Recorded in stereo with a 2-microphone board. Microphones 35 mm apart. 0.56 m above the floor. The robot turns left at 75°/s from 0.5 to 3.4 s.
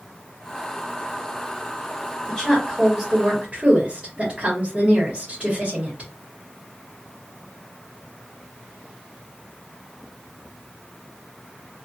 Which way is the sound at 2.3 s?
10° left (ahead or behind).